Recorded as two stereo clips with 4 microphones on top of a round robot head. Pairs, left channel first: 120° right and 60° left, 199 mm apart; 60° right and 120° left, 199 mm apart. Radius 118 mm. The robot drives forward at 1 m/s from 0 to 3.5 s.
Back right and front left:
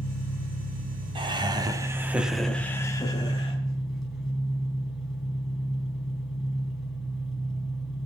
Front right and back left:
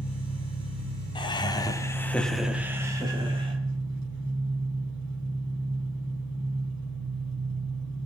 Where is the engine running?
75° left, 2 m; by 8.1 s 150° left, 3.5 m.